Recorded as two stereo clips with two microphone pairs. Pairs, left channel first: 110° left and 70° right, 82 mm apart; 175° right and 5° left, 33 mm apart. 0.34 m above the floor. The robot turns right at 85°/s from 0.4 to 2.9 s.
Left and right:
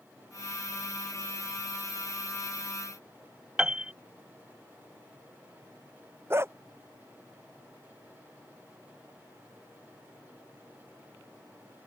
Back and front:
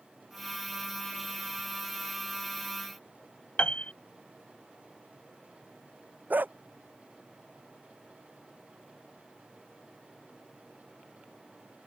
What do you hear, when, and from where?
3.6 s a piano: 145° right
6.3 s a dog barking: 10° right